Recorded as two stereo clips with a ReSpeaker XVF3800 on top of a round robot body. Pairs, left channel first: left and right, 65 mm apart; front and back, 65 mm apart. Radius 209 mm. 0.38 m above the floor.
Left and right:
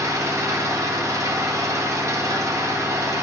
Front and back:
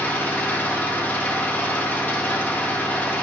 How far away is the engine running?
About 1.3 m.